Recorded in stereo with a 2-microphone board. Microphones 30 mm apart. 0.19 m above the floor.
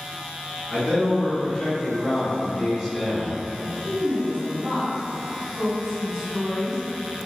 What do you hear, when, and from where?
0.7 s a man speaking: 25° left (ahead or behind), 1.9 m; by 3.4 s 5° right (ahead or behind), 1.1 m
3.5 s a woman speaking: 25° right (ahead or behind), 1.5 m